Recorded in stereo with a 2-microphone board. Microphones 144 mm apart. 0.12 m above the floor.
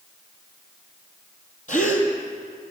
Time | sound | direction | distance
1.7 | a gasp | 60° left (ahead or behind) | 3.5 m